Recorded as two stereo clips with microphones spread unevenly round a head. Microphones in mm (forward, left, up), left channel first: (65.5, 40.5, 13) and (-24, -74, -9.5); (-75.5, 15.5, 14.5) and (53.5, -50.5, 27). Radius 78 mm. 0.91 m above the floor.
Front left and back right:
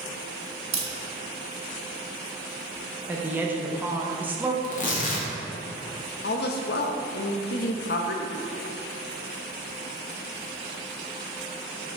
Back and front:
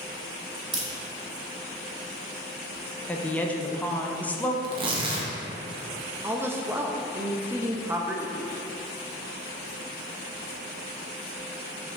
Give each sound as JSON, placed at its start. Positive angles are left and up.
{"t": 0.7, "sound": "a crack", "azimuth_deg": -75, "distance_m": 2.5}
{"t": 3.1, "sound": "a woman speaking", "azimuth_deg": -155, "distance_m": 0.7}
{"t": 4.6, "sound": "tearing paper", "azimuth_deg": 25, "distance_m": 1.3}
{"t": 6.2, "sound": "a woman speaking", "azimuth_deg": 50, "distance_m": 0.8}